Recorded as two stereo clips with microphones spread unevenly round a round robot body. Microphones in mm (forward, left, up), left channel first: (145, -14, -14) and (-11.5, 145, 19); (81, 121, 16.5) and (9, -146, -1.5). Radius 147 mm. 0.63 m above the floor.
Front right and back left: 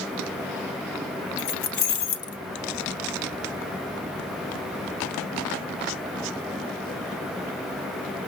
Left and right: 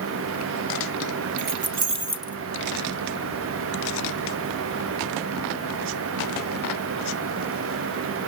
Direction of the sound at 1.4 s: 70° right.